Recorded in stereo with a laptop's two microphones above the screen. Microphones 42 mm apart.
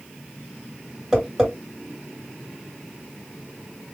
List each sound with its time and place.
1.1 s tapping: 10° right (ahead or behind), 2 m